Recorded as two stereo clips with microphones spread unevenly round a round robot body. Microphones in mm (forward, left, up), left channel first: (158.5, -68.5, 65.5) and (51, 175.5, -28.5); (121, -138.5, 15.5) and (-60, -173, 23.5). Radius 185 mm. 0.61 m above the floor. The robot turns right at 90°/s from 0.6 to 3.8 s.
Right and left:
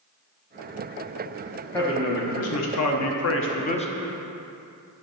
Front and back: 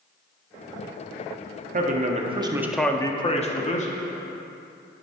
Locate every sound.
1.7 s a man speaking: 170° right, 1.0 m; by 3.9 s 15° left, 1.0 m